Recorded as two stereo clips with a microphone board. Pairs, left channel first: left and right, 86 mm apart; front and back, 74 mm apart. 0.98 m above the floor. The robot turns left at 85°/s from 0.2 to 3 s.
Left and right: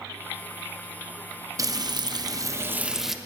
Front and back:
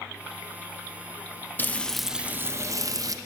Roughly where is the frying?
Ahead right.